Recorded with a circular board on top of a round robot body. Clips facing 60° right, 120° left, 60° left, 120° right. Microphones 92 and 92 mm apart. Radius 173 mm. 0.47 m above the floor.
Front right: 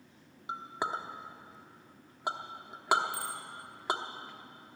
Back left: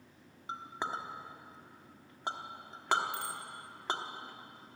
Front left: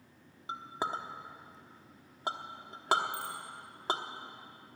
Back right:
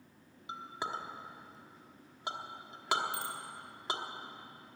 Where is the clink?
20° left, 1.2 m.